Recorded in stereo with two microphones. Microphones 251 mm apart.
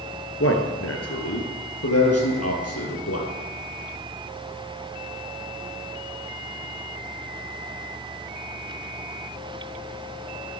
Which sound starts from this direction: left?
A man speaking, at 0.4 s.